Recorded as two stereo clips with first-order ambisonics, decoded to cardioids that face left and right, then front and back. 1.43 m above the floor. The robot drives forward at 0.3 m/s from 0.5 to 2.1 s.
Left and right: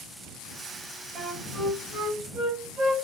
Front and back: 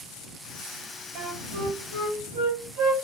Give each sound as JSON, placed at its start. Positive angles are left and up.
{"t": 1.1, "sound": "a flute", "azimuth_deg": -155, "distance_m": 2.5}